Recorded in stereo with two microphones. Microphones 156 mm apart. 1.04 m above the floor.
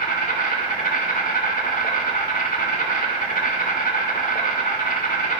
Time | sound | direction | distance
0.0 | an insect | 60° left (ahead or behind) | 3 m